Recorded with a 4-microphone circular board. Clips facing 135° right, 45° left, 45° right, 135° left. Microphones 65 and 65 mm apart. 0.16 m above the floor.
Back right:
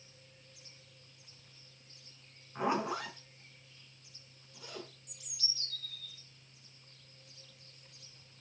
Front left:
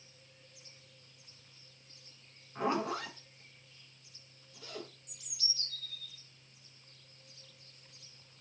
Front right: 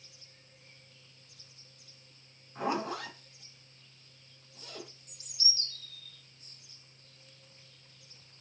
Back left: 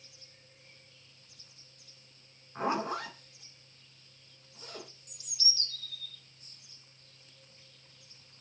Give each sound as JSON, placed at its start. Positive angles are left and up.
{"t": 2.5, "sound": "a zipper", "azimuth_deg": 160, "distance_m": 1.1}
{"t": 5.1, "sound": "a bird", "azimuth_deg": -45, "distance_m": 1.3}